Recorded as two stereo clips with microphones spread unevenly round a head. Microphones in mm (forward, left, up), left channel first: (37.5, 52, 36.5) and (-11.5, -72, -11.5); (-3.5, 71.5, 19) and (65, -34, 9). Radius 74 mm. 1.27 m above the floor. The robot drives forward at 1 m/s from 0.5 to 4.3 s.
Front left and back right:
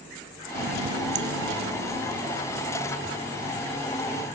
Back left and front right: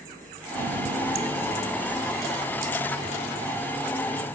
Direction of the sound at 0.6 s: 85° right.